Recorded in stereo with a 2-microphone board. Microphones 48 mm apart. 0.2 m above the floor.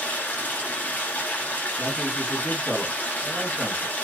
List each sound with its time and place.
0.0 s running water: 35° left (ahead or behind), 1.1 m
1.8 s a man speaking: centre (ahead or behind), 2 m